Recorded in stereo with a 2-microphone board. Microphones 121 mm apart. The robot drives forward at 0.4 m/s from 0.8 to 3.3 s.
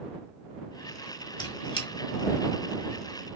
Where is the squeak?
40° left (ahead or behind), 1.4 m; by 1.9 s 45° left (ahead or behind), 1.3 m.